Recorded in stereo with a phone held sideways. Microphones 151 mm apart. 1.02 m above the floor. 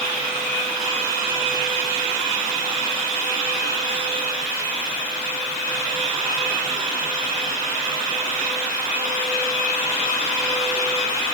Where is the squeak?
I don't hear a squeak.